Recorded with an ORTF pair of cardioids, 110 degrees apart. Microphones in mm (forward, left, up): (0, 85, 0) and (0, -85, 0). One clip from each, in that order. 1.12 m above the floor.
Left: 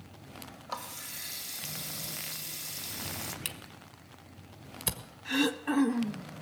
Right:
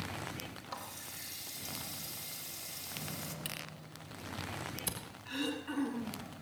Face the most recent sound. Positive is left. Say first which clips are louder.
# left 9 dB
turn(degrees=70)